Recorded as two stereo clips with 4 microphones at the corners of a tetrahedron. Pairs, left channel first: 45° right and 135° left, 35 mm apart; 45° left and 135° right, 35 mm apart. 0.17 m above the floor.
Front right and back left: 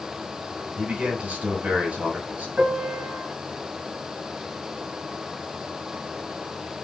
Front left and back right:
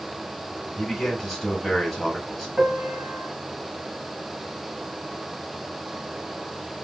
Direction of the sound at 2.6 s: 170° left.